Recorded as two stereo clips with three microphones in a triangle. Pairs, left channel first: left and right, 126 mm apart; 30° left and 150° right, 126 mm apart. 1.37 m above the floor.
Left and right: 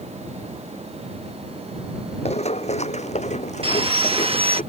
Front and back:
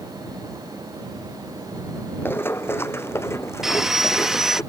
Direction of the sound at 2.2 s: 100° left.